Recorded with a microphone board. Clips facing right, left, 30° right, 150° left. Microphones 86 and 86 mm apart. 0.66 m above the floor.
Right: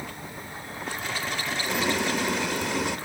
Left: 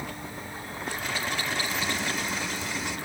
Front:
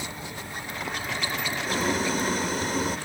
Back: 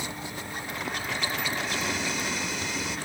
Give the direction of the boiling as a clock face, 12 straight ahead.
2 o'clock.